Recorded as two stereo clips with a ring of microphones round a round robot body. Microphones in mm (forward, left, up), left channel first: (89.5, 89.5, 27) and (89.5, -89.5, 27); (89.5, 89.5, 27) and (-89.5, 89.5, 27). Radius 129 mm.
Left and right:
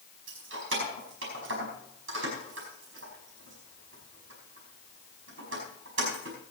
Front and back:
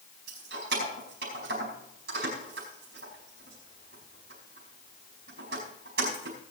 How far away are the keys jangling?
About 5 m.